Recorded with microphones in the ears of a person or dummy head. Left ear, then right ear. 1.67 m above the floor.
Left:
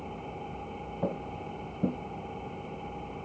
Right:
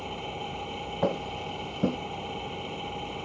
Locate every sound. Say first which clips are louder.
0.0 s an engine running: right 5 dB; 85° right
1.0 s footsteps: right 6 dB; 55° right (ahead or behind)